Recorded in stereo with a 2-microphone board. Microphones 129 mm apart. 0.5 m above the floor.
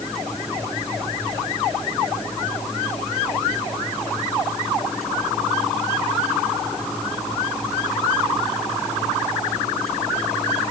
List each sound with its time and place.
Only background noise.